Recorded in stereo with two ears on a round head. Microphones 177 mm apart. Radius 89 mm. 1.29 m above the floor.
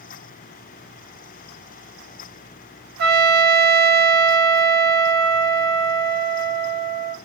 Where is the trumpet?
65° right (ahead or behind), 1.9 m.